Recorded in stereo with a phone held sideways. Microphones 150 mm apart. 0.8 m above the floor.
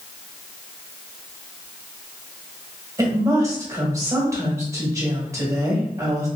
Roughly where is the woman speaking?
Centre.